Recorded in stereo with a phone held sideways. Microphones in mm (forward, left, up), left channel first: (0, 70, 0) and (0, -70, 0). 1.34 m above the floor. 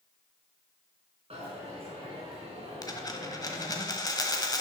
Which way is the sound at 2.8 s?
25° left (ahead or behind).